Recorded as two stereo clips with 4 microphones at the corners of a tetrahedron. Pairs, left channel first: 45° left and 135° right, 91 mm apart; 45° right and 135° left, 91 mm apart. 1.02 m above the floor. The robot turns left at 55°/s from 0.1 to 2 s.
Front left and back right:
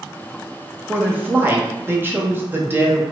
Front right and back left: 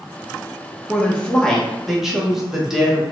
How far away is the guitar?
I don't hear a guitar.